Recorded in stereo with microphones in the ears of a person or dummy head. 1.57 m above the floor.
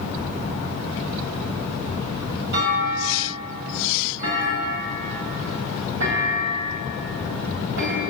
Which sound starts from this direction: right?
A clunk, at 2.5 s.